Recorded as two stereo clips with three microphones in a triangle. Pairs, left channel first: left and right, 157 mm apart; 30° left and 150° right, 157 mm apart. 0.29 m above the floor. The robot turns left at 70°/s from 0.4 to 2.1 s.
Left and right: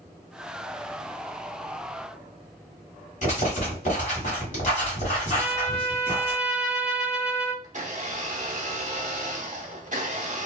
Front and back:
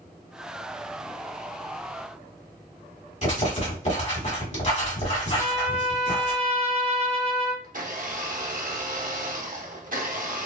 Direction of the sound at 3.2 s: 60° left.